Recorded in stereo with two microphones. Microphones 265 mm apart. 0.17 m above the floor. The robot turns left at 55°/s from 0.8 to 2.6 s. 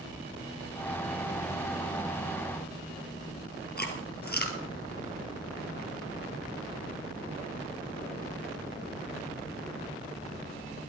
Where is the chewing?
35° left (ahead or behind), 2 m.